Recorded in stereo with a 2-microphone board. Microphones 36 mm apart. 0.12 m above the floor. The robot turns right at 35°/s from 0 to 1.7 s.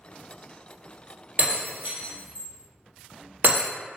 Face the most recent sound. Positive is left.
turn(degrees=-60)  # may be behind; listen again after turning